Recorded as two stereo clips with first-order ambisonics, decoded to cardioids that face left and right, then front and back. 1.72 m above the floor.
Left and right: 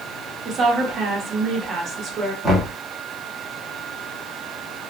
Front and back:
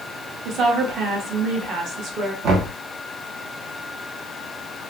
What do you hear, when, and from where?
0.5 s a woman speaking: 145° right, 0.9 m
2.4 s knocking: straight behind, 1.1 m